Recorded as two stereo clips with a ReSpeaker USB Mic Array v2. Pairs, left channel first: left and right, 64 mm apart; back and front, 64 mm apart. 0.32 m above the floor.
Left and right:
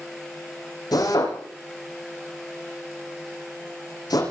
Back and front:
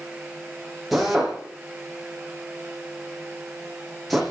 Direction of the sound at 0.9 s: 90° left.